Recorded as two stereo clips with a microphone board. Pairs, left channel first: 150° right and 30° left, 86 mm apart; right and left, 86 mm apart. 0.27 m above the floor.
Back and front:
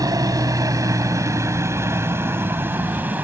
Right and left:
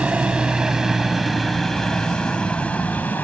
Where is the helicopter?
20° left; by 3.2 s 30° right.